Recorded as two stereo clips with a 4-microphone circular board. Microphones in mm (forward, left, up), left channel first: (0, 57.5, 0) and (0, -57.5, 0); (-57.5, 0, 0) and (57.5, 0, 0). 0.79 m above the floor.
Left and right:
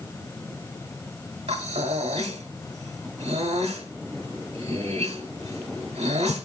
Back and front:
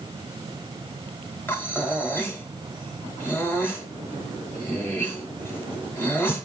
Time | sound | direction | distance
1.5 | breathing | 110° right | 1.0 m